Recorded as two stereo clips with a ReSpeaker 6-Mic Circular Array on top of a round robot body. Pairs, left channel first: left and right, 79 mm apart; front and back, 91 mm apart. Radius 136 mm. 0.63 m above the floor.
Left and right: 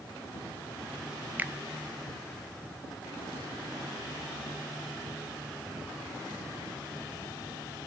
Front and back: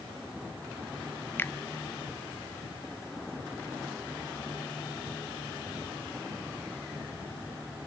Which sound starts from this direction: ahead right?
A finger snap, at 1.4 s.